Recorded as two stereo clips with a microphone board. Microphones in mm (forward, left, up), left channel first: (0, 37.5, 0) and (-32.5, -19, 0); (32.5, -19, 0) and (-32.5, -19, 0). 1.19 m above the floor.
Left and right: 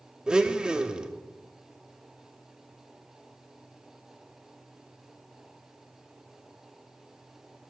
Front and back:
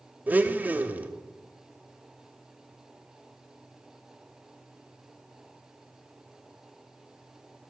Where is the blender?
Straight behind, 0.7 m.